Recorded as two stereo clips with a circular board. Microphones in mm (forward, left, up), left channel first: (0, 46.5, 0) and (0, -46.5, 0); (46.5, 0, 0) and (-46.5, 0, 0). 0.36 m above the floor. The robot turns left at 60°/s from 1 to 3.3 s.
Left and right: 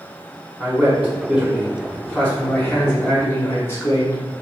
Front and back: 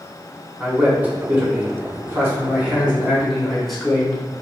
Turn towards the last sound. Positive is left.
turn(degrees=85)